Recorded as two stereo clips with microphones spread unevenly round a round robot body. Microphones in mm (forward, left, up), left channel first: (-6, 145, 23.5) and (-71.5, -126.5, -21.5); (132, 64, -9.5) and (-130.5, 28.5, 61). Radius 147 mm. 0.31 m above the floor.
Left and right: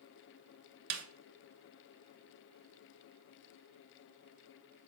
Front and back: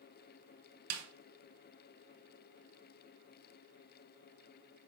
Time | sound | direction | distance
0.9 | a snare drum | 135° right | 0.7 m